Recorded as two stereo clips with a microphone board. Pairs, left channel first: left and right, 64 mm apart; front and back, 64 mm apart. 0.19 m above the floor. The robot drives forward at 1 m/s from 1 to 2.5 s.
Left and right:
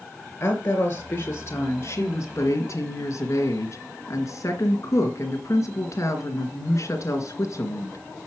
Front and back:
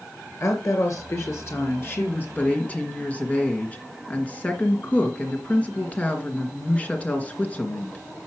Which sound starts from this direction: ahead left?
A woman speaking, at 0.4 s.